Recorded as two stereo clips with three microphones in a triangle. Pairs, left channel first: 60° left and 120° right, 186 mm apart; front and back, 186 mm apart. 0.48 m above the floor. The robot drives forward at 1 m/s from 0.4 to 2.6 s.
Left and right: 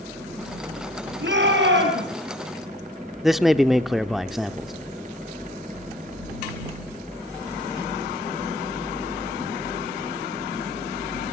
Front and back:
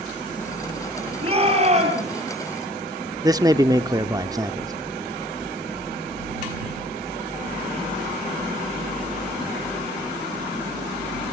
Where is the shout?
125° right, 9 m; by 2.1 s 130° right, 9.5 m.